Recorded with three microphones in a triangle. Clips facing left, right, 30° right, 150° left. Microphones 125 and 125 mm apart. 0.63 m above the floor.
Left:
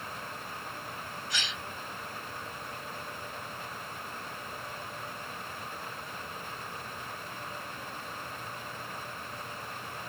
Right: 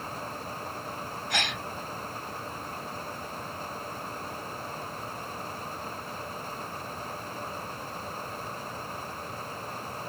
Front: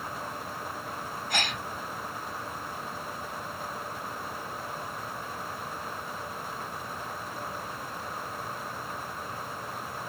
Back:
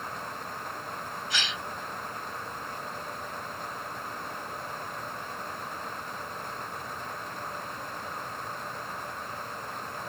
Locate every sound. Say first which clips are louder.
1.3 s a gasp: right 8 dB, front 4 dB; 65° right